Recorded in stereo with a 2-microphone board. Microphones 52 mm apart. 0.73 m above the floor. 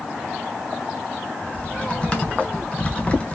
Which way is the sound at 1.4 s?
25° left (ahead or behind).